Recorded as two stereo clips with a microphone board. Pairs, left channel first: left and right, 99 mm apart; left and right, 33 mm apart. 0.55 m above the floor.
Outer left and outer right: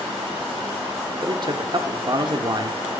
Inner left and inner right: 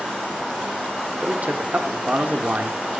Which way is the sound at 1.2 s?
45° right (ahead or behind).